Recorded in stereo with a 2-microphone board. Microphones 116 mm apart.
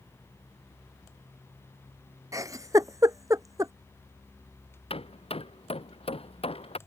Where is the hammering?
55° left (ahead or behind).